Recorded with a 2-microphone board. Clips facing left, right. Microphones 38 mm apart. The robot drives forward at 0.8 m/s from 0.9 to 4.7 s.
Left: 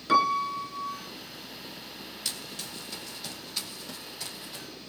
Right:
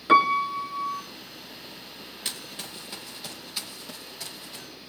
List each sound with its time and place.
0.1 s a piano: 25° right (ahead or behind), 1.8 m
2.2 s running footsteps: 30° right (ahead or behind), 3 m; by 4.7 s 5° right (ahead or behind), 6 m